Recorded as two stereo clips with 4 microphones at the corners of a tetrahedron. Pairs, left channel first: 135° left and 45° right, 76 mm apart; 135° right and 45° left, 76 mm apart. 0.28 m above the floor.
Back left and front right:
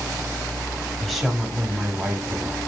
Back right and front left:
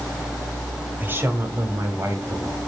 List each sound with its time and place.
1.0 s a woman speaking: 55° left, 1.4 m; by 2.6 s 10° left, 2 m